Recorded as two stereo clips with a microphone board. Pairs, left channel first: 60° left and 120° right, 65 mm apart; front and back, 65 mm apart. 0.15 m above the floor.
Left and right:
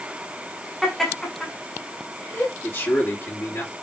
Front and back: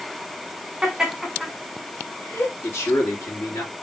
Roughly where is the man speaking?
Ahead left.